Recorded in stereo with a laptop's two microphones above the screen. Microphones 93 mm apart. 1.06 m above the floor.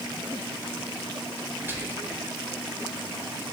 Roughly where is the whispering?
Right.